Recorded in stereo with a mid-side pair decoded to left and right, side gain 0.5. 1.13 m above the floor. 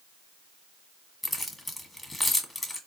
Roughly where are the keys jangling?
Ahead.